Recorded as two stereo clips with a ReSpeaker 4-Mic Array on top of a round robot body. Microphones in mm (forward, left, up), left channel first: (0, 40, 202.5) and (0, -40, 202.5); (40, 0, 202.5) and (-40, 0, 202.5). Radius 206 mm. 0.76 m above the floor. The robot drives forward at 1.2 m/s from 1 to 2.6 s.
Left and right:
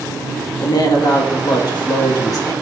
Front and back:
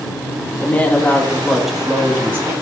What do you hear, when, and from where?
0.6 s a woman speaking: 70° left, 1.9 m; by 2.5 s 125° left, 2 m